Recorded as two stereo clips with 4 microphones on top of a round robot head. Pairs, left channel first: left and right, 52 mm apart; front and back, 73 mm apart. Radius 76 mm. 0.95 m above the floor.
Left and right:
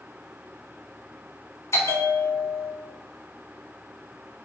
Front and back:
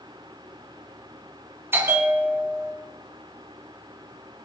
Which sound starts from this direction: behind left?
A bell, at 1.7 s.